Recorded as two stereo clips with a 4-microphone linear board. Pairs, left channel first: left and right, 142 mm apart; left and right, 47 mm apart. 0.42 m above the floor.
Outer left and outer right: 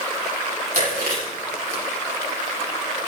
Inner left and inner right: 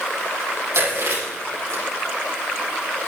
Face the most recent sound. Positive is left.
turn(degrees=-80)